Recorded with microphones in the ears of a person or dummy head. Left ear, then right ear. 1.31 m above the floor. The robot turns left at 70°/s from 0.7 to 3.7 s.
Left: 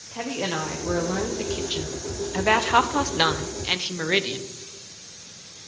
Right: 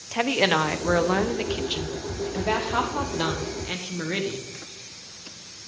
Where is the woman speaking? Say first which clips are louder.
Right 7 dB; 110° right, 0.7 m; by 4.5 s 40° left, 0.7 m.